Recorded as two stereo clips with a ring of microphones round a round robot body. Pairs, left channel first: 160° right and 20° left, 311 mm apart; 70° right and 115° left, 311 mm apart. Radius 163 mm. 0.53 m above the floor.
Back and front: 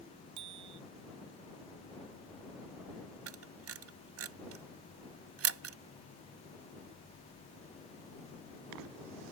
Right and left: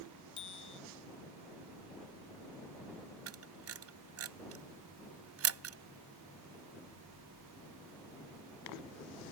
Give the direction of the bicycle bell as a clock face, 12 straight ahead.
12 o'clock.